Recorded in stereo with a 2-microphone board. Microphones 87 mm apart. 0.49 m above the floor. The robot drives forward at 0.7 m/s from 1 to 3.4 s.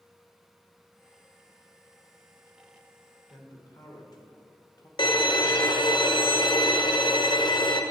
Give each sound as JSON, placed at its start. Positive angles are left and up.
{"t": 3.3, "sound": "a man speaking", "side_deg": 50, "distance_m": 1.4}
{"t": 5.0, "sound": "a violin", "side_deg": 60, "distance_m": 0.6}